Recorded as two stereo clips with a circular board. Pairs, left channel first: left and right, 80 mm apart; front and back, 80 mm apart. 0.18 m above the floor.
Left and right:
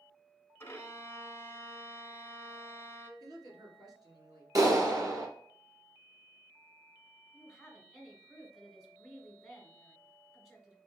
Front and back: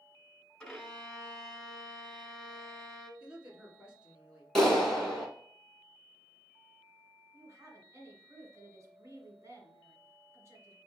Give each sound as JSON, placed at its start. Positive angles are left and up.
{"t": 0.6, "sound": "a violin", "azimuth_deg": 75, "distance_m": 0.9}
{"t": 3.2, "sound": "a woman speaking", "azimuth_deg": -105, "distance_m": 1.8}
{"t": 4.5, "sound": "a clap", "azimuth_deg": -80, "distance_m": 1.3}
{"t": 7.3, "sound": "a woman speaking", "azimuth_deg": 180, "distance_m": 1.7}